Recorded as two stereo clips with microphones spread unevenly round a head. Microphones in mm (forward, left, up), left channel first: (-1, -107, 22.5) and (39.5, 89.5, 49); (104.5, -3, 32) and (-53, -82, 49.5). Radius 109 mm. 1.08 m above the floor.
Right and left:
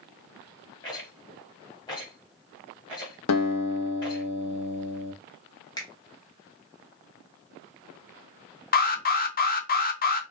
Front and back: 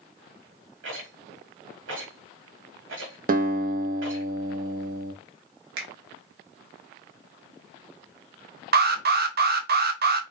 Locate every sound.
0.8 s a rattle: 170° right, 1.6 m
3.3 s a guitar: 120° right, 0.5 m
5.8 s a finger snap: 170° right, 0.9 m
8.7 s an alarm: 130° right, 0.7 m